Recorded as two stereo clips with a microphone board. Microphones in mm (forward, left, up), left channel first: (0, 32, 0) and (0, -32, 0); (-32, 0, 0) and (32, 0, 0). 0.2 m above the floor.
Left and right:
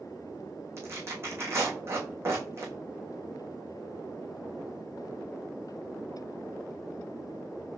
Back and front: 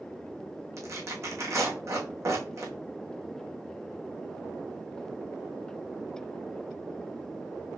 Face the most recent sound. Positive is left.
turn(degrees=-40)